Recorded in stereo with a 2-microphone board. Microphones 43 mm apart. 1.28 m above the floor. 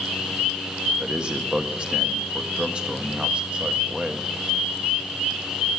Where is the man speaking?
25° right (ahead or behind), 1.0 m.